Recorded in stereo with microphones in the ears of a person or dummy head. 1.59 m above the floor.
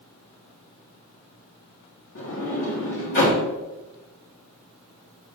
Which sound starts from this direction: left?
A sliding door, at 2.1 s.